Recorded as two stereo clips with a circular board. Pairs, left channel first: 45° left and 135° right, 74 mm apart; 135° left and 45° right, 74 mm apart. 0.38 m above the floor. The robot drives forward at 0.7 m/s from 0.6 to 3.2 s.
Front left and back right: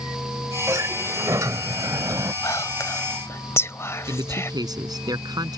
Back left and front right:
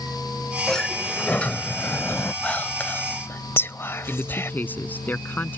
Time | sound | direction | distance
0.7 | a sliding door | 145° right | ?
2.4 | whispering | 65° left | ?
4.1 | a man speaking | 160° right | ?